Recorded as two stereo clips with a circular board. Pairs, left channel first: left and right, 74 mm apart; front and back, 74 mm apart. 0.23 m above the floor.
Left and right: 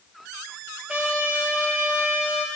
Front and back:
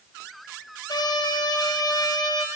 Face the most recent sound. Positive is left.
turn(degrees=-15)